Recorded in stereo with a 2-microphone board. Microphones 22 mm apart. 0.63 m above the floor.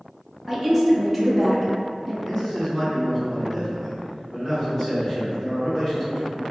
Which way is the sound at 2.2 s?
40° left (ahead or behind).